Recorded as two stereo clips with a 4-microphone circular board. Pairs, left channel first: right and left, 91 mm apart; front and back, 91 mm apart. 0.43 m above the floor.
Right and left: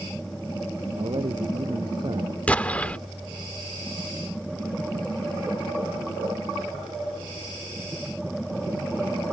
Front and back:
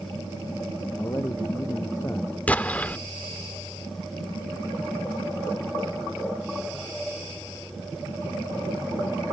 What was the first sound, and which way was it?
A man speaking, 60° left.